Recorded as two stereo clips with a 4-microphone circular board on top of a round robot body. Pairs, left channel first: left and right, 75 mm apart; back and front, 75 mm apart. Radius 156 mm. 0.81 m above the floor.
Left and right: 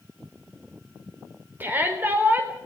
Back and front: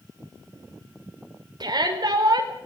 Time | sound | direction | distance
1.6 | a shout | 25° right | 4.5 m